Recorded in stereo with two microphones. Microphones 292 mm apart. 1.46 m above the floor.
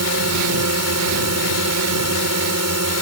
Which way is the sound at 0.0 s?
65° right (ahead or behind).